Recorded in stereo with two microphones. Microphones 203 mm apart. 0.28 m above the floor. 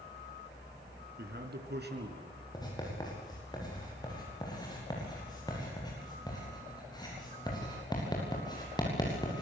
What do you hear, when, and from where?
1.2 s a man speaking: 55° right (ahead or behind), 3 m; by 2.4 s 60° right (ahead or behind), 4.5 m
2.5 s writing: 20° left (ahead or behind), 9 m